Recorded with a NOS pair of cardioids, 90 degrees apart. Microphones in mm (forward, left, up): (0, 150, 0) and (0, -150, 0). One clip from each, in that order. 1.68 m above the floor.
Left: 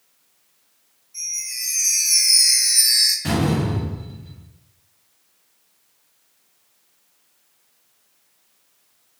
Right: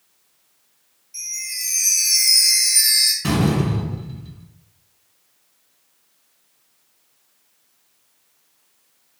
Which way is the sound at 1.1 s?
70° right.